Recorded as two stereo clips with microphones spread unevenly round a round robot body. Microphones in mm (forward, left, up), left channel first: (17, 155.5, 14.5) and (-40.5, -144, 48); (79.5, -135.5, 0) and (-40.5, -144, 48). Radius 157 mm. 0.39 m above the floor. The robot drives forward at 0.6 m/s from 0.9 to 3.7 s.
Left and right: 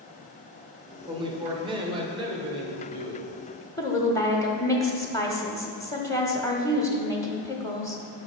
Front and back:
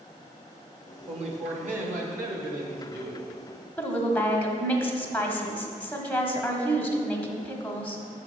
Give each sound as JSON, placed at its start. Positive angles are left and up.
{"t": 1.1, "sound": "a man speaking", "azimuth_deg": -175, "distance_m": 0.9}
{"t": 3.8, "sound": "a woman speaking", "azimuth_deg": 20, "distance_m": 0.8}